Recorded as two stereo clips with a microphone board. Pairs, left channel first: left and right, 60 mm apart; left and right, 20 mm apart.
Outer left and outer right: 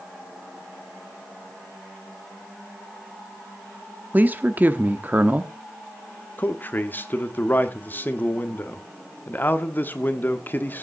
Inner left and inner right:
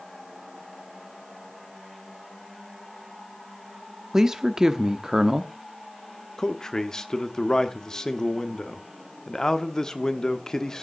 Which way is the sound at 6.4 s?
35° left (ahead or behind).